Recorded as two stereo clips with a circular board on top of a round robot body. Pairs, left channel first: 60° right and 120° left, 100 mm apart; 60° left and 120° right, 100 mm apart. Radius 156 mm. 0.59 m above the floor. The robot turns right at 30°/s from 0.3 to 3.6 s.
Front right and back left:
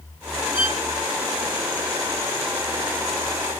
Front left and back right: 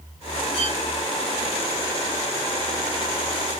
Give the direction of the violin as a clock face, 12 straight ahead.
4 o'clock.